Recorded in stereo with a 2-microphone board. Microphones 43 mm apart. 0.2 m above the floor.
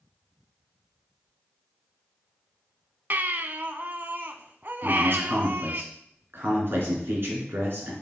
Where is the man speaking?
55° right (ahead or behind), 2.5 m.